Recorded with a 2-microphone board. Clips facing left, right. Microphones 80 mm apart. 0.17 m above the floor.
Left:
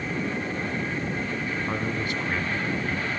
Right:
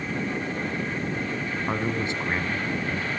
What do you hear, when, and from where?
1.7 s a man speaking: 25° right (ahead or behind), 1.0 m